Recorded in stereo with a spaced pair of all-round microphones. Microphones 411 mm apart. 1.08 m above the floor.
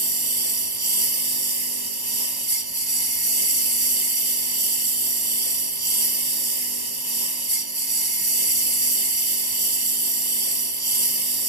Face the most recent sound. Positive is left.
turn(degrees=-65)  # may be behind; listen again after turning